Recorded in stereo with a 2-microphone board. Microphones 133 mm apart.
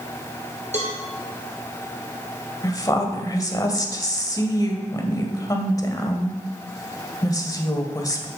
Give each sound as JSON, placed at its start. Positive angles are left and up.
{"t": 0.7, "sound": "a cowbell", "side_deg": -60, "distance_m": 3.0}
{"t": 2.6, "sound": "a woman speaking", "side_deg": 25, "distance_m": 1.7}